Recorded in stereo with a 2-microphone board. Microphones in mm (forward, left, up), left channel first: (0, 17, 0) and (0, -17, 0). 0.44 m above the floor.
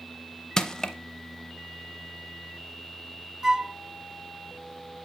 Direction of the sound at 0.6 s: 25° left (ahead or behind).